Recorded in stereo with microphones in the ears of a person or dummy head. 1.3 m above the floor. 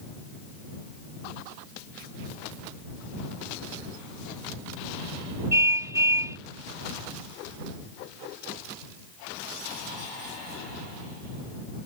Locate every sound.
5.5 s a car horn: 15° right (ahead or behind)